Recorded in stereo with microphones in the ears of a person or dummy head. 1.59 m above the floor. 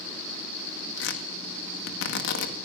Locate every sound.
1.0 s tearing paper: 80° left, 2 m